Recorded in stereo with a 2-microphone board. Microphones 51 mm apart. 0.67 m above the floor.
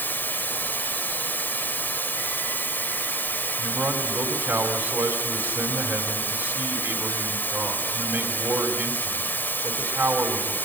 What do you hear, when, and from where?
0.0 s running water: 40° left (ahead or behind), 3 m
3.6 s a man speaking: 55° right (ahead or behind), 3.5 m